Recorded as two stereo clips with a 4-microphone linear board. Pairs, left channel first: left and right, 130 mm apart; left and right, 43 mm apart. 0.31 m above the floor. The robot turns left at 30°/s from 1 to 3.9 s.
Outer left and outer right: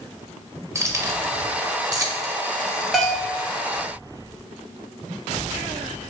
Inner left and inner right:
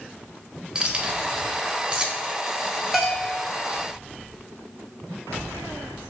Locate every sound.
0.8 s keys jangling: 20° right (ahead or behind), 0.6 m; by 3.2 s 25° right (ahead or behind), 0.6 m
2.9 s a bell: centre (ahead or behind), 0.8 m; by 3.4 s 10° right (ahead or behind), 0.8 m